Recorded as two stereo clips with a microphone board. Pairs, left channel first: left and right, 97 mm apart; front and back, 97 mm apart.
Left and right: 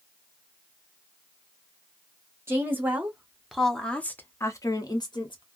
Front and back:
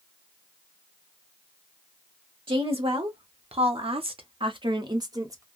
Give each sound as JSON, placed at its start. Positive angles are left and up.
{"t": 2.5, "sound": "a woman speaking", "azimuth_deg": -155, "distance_m": 1.3}